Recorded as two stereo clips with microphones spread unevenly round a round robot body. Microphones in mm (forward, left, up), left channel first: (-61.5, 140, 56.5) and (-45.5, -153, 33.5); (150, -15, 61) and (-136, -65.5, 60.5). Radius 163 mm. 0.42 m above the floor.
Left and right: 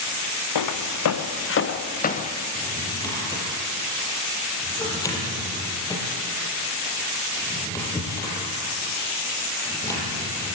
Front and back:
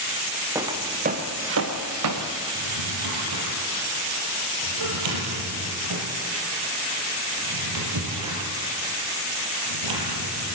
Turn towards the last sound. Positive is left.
turn(degrees=170)